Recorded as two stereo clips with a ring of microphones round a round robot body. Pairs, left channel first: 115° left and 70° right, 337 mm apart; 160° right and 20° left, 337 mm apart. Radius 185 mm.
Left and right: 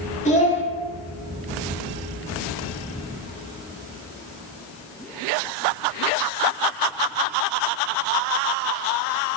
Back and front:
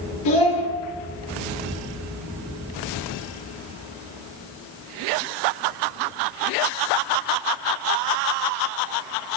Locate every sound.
0.2 s a child speaking: straight behind, 1.8 m